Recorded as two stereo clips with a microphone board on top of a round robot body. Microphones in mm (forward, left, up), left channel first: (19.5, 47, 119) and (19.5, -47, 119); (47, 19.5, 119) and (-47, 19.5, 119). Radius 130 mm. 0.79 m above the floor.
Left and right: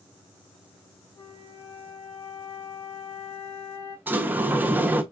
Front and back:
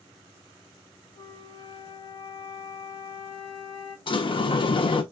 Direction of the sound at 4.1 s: 20° right.